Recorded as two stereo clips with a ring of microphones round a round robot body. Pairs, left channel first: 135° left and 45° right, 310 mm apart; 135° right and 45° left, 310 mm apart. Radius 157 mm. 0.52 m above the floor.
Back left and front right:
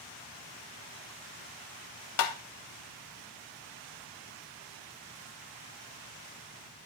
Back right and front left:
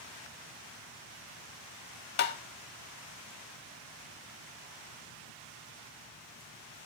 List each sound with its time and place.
2.2 s tapping: 165° left, 0.6 m